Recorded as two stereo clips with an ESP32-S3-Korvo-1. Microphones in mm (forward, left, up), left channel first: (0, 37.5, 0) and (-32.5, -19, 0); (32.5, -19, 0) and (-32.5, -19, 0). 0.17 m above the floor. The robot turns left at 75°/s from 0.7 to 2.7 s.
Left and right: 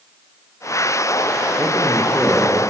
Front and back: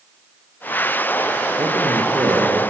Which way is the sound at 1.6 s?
175° right.